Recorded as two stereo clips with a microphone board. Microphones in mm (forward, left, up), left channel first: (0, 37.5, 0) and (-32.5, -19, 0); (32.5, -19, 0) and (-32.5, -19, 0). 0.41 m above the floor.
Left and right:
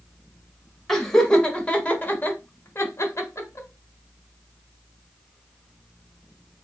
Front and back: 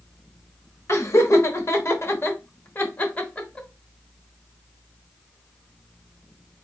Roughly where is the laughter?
Ahead right.